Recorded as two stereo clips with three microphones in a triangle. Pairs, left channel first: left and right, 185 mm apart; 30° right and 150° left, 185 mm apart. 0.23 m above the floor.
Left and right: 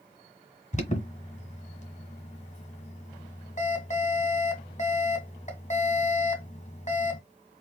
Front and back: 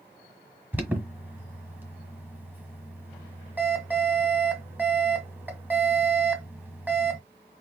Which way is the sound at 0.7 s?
75° left.